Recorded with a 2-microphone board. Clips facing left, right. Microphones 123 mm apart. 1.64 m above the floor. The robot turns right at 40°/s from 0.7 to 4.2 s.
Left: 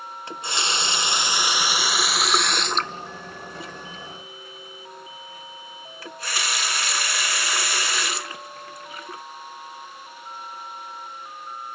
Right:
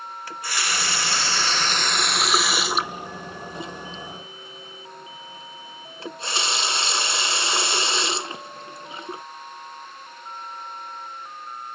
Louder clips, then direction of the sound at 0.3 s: Left 1 dB; 25° left (ahead or behind).